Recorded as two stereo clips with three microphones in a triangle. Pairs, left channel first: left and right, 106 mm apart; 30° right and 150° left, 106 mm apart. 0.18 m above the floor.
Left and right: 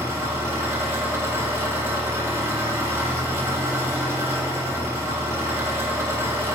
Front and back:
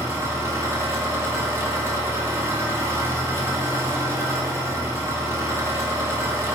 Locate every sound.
0.0 s an engine running: 145° right, 1.2 m